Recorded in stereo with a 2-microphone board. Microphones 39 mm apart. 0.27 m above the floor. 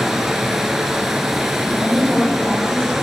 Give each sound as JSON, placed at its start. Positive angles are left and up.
{"t": 0.0, "sound": "running water", "side_deg": -10, "distance_m": 1.3}
{"t": 1.6, "sound": "a woman speaking", "side_deg": 40, "distance_m": 2.5}